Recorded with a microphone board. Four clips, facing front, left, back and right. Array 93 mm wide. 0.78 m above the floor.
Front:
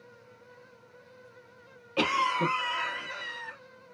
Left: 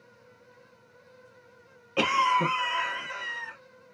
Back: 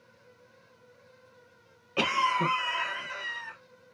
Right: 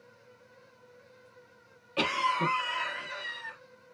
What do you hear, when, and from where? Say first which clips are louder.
2.0 s a cough: left 5 dB, even; 115° left, 0.9 m